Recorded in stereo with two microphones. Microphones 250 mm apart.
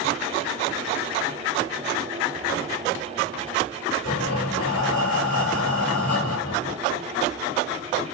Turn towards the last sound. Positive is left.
turn(degrees=60)  # may be behind; listen again after turning